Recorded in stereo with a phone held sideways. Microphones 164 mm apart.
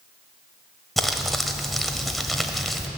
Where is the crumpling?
Centre (ahead or behind), 1.3 m.